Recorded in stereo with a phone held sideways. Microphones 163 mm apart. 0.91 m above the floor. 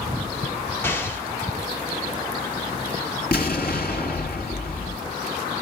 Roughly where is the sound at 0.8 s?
Centre.